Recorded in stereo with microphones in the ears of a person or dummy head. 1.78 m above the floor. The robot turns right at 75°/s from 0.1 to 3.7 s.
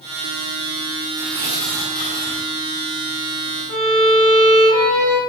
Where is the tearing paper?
40° right, 5.5 m; by 2.5 s 60° left, 5.5 m.